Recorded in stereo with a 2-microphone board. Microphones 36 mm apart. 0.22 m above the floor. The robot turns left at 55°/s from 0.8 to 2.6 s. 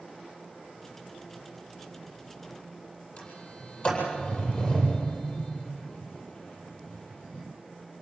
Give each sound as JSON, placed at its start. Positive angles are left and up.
{"t": 3.2, "sound": "a sliding door", "side_deg": 40, "distance_m": 8.5}